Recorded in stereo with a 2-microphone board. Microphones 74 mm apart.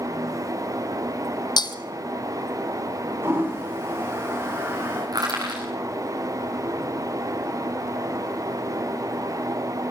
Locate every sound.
1.6 s breaking glass: 80° left, 1.4 m
3.2 s a toilet flushing: 35° right (ahead or behind), 9 m
5.1 s crushing: 65° right (ahead or behind), 8 m